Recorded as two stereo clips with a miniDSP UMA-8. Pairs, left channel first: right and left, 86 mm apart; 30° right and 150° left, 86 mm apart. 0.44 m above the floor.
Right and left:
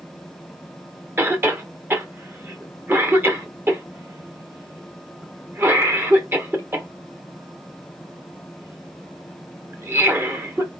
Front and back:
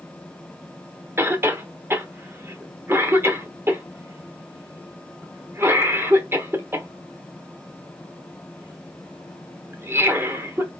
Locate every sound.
1.2 s a cough: 125° left, 1.0 m